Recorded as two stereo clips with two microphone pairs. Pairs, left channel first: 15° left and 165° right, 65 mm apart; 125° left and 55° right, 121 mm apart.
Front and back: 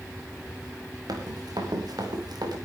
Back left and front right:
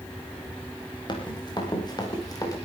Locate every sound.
1.1 s running footsteps: 175° left, 5.5 m; by 2.6 s 175° right, 5 m